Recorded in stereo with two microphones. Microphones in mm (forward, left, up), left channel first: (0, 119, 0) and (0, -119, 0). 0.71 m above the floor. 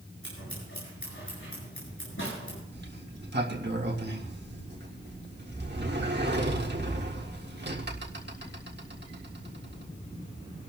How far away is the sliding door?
About 1.7 m.